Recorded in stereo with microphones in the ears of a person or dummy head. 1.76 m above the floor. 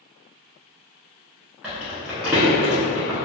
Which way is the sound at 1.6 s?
10° right (ahead or behind).